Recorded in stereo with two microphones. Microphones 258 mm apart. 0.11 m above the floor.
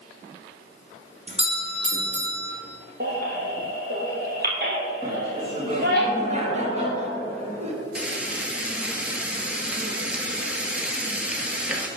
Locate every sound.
1.3 s a doorbell: 25° right (ahead or behind), 2 m
3.0 s a baby crying: 40° right (ahead or behind), 2 m
5.0 s laughter: 25° right (ahead or behind), 2.5 m
8.0 s frying: 5° right (ahead or behind), 1.3 m